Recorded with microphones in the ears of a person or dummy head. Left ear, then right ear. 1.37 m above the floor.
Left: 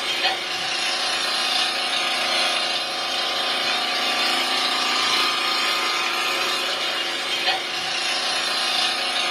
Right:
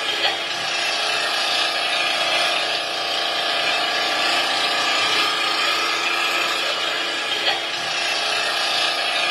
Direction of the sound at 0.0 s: 40° right (ahead or behind).